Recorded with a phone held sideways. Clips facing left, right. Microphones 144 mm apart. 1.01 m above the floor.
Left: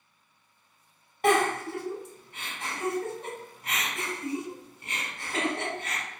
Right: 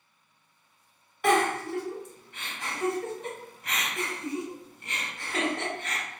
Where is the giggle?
40° left (ahead or behind), 1.4 m.